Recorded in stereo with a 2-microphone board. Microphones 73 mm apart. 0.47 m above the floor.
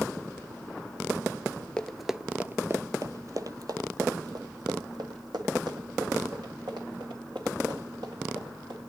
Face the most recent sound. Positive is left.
turn(degrees=-85)